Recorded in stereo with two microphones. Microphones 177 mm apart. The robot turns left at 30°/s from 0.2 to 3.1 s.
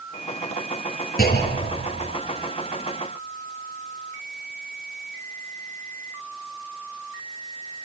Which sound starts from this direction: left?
A clunk, at 1.2 s.